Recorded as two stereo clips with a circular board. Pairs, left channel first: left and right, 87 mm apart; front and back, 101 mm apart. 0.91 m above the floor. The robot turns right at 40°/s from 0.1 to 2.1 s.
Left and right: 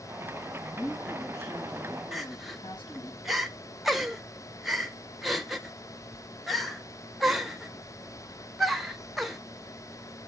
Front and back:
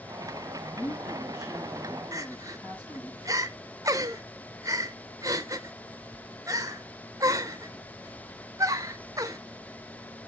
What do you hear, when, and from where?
0.7 s a woman speaking: 15° left, 6 m; by 3.1 s 70° left, 6 m
2.1 s crying: straight behind, 0.7 m